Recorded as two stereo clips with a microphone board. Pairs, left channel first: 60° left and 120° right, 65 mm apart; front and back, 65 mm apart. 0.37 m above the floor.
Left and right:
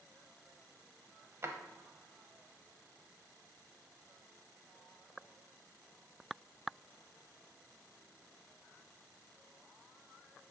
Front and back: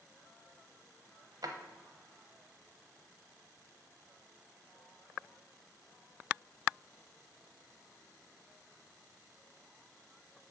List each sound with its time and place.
1.4 s a drawer: 170° right, 0.9 m